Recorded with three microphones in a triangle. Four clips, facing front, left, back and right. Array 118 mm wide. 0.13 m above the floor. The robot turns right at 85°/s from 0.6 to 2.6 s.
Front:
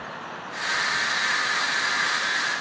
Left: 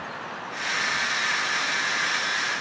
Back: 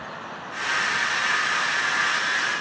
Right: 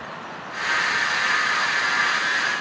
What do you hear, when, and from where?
Only background noise.